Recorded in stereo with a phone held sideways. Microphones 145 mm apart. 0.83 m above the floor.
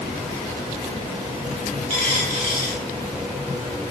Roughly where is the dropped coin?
Left.